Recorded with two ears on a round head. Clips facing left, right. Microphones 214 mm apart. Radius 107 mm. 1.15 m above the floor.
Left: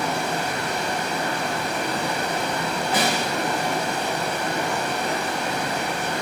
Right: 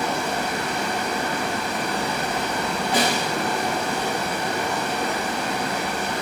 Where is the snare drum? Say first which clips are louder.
Right 1 dB; 10° right (ahead or behind), 1.3 m.